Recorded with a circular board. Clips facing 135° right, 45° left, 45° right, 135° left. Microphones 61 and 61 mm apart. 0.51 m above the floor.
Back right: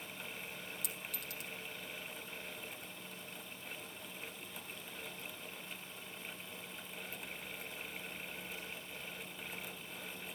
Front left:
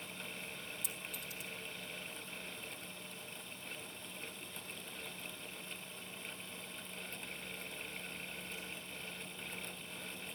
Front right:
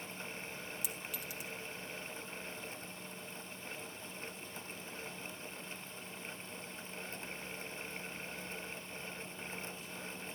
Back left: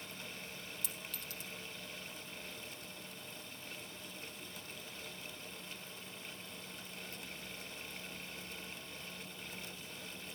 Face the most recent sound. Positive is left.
turn(degrees=-120)